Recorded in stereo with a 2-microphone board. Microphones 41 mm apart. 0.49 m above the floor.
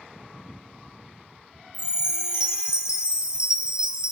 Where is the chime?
20° right (ahead or behind), 0.8 m.